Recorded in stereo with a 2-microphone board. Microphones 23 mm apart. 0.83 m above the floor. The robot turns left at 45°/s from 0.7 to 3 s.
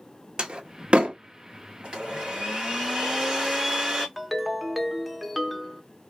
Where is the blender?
85° right, 1.9 m; by 4.1 s 135° right, 1.9 m.